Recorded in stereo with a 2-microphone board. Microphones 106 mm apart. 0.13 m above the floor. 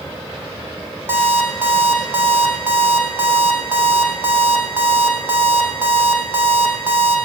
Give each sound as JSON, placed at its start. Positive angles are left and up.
{"t": 1.1, "sound": "an alarm clock", "side_deg": -20, "distance_m": 4.0}